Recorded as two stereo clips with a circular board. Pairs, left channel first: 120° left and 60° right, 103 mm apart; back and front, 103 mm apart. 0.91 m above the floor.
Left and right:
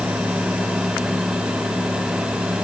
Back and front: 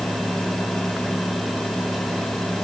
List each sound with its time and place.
Only background noise.